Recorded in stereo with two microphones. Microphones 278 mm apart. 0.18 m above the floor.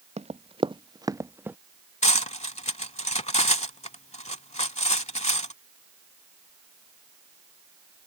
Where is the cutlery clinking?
25° left (ahead or behind).